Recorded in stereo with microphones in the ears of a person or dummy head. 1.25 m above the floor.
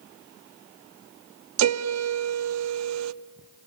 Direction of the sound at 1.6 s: 90° right.